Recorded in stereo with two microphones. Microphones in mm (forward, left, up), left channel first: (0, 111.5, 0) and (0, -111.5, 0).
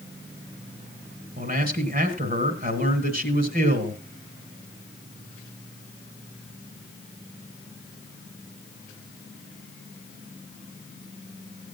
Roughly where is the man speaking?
Right.